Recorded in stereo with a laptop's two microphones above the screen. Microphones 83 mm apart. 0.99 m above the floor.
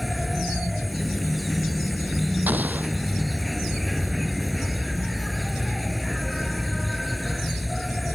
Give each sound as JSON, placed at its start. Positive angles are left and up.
{"t": 0.0, "sound": "an insect", "side_deg": 0}
{"t": 2.5, "sound": "an explosion", "side_deg": -20}